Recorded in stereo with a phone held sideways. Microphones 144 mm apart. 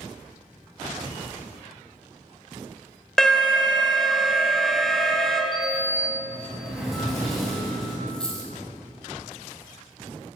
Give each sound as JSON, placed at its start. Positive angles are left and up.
{"t": 3.2, "sound": "an alarm", "side_deg": 5, "distance_m": 0.6}
{"t": 5.5, "sound": "a sliding door", "side_deg": 0, "distance_m": 1.2}
{"t": 8.1, "sound": "a dropped coin", "side_deg": 5, "distance_m": 0.9}